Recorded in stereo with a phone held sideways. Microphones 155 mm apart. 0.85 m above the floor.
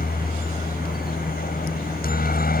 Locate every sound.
0.0 s a helicopter: 70° left (ahead or behind)